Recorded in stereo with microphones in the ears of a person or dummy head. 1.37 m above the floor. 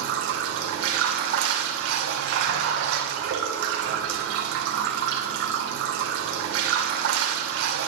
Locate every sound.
0.0 s running water: 70° right (ahead or behind), 2.5 m